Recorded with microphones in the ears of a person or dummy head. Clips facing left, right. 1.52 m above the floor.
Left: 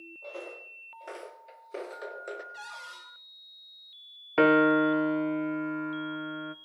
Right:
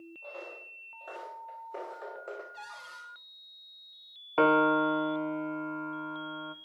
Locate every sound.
0.2 s footsteps: 35° left (ahead or behind), 3 m; by 2.4 s 15° left (ahead or behind), 1.5 m
2.5 s a cupboard door: 20° left (ahead or behind), 7.5 m
4.4 s a piano: 20° left (ahead or behind), 0.6 m